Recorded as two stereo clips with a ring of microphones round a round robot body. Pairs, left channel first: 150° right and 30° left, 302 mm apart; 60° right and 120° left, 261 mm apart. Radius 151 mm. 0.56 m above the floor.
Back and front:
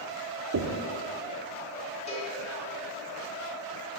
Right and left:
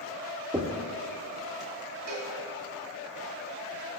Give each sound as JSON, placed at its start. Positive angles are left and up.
{"t": 0.5, "sound": "knocking", "azimuth_deg": 45, "distance_m": 1.0}
{"t": 2.1, "sound": "a cowbell", "azimuth_deg": 140, "distance_m": 2.0}